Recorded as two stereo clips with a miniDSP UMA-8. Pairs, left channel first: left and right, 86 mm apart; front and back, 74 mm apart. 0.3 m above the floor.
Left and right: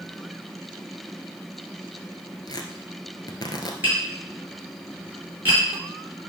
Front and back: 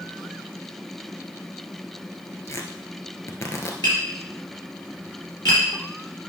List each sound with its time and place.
2.5 s tearing paper: 50° left, 1.1 m
3.8 s tapping: 25° right, 5 m